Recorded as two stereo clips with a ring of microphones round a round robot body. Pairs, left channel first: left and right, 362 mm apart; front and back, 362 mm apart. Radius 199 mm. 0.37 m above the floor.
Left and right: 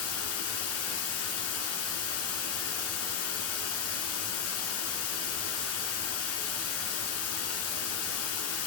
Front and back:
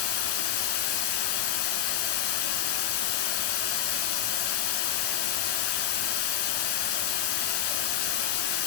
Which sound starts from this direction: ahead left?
Running water, at 0.0 s.